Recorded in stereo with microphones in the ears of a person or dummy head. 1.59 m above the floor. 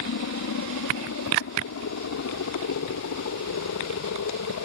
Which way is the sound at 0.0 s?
65° left (ahead or behind).